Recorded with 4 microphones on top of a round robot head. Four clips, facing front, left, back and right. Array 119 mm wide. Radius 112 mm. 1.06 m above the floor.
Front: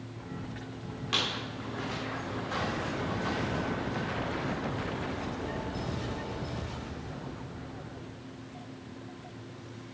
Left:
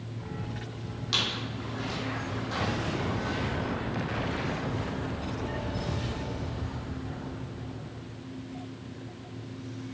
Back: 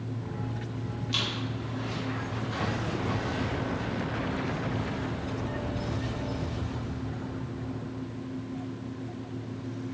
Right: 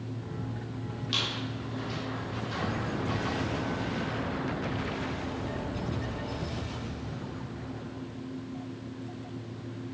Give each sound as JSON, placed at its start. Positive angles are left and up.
{"t": 1.1, "sound": "a squeak", "azimuth_deg": 20, "distance_m": 1.4}